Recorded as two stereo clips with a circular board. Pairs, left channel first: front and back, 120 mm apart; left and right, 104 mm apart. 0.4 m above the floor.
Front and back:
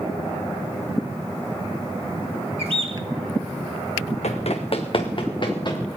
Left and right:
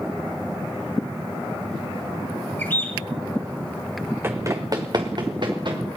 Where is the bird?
160° left, 2.5 m.